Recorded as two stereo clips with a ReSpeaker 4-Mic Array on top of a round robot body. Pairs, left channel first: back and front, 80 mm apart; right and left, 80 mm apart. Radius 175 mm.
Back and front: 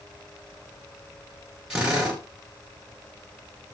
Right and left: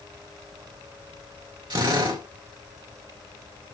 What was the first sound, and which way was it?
A drill, 80° left.